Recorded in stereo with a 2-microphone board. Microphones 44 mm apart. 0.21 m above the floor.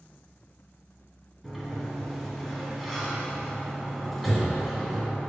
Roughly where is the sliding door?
Centre.